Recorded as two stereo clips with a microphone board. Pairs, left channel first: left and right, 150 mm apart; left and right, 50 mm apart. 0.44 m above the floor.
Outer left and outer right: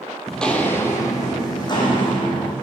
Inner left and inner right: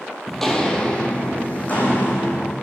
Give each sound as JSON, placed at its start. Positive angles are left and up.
{"t": 0.3, "sound": "footsteps", "side_deg": 0, "distance_m": 0.7}